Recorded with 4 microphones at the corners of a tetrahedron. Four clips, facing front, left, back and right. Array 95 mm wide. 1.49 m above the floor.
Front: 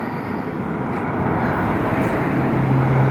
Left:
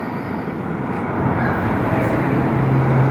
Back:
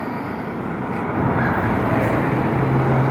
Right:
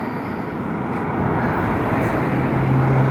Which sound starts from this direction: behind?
Footsteps, at 1.1 s.